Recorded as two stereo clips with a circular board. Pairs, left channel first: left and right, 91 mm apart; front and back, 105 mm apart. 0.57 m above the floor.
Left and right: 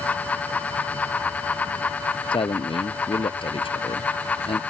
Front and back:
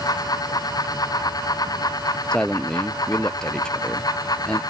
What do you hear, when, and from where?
2.3 s a man speaking: 80° left